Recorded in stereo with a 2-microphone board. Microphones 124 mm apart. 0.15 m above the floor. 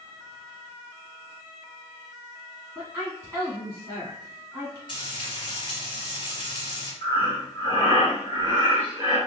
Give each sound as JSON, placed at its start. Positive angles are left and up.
{"t": 2.8, "sound": "a woman speaking", "side_deg": -20, "distance_m": 1.2}
{"t": 4.9, "sound": "frying", "side_deg": 40, "distance_m": 1.6}
{"t": 7.0, "sound": "breathing", "side_deg": 30, "distance_m": 1.8}